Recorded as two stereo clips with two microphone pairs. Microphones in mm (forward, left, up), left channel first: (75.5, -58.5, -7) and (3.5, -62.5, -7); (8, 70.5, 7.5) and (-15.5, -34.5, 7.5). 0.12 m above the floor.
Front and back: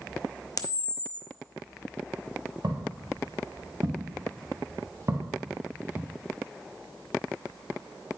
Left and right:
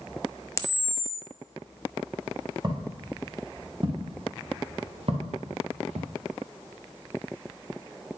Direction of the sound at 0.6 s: 20° left.